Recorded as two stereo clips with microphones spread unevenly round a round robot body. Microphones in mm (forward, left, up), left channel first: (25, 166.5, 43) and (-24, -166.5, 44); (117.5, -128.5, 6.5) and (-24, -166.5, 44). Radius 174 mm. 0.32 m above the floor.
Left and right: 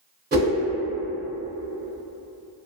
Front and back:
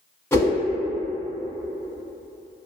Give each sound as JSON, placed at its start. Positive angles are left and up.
{"t": 0.3, "sound": "a whoosh", "azimuth_deg": -45, "distance_m": 1.0}